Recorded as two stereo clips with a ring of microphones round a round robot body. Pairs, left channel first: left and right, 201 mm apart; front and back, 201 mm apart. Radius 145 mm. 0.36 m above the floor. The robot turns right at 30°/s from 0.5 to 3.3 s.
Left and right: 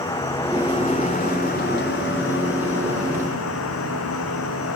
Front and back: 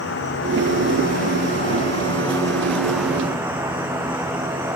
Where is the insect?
15° left, 4 m; by 4.8 s 100° left, 4 m.